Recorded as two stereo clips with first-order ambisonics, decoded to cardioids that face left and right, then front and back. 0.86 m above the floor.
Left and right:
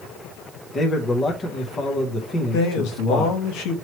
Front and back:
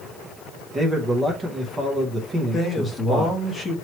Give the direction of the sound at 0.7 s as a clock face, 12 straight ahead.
8 o'clock.